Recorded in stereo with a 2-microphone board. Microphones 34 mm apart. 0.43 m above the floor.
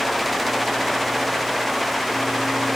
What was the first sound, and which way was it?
Only background noise.